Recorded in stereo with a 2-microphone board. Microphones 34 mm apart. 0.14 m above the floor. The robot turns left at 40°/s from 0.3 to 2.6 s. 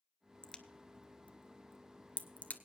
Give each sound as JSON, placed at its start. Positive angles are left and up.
{"t": 0.4, "sound": "a crack", "side_deg": 25, "distance_m": 0.7}